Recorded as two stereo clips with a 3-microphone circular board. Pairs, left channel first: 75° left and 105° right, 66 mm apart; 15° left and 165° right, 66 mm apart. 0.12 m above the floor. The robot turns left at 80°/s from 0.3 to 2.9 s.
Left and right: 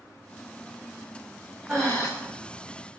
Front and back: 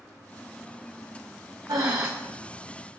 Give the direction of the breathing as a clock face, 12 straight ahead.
6 o'clock.